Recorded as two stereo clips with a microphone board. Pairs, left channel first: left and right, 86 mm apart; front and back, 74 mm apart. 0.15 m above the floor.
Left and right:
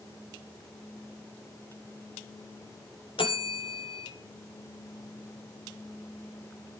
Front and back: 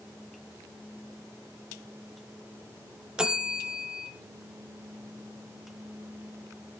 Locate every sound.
3.2 s a bell: 100° left, 0.9 m